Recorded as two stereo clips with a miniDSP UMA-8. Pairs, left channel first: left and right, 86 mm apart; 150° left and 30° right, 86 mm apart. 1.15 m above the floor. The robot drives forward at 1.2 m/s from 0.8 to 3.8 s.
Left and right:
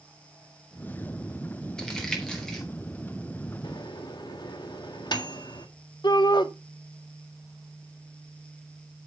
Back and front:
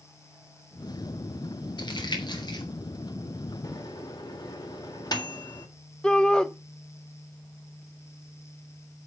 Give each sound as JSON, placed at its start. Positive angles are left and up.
{"t": 1.8, "sound": "crumpling", "azimuth_deg": 170, "distance_m": 3.0}
{"t": 3.6, "sound": "a microwave", "azimuth_deg": 110, "distance_m": 1.6}
{"t": 6.0, "sound": "a shout", "azimuth_deg": 70, "distance_m": 1.0}